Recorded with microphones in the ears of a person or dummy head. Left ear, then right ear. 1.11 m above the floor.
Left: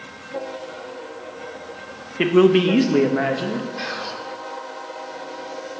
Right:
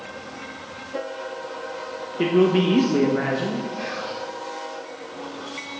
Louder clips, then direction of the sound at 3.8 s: Left 1 dB; 45° left (ahead or behind).